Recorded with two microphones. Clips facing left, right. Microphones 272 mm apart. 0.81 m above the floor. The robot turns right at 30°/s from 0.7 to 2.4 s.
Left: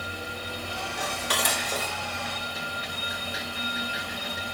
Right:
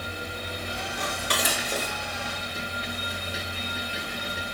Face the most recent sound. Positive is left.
turn(degrees=-30)  # may be behind; listen again after turning